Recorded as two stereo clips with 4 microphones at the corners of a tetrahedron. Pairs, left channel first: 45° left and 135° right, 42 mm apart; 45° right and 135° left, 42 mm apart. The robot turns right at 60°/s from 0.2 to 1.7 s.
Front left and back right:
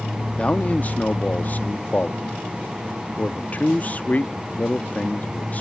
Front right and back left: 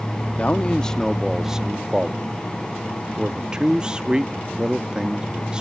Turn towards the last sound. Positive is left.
turn(degrees=75)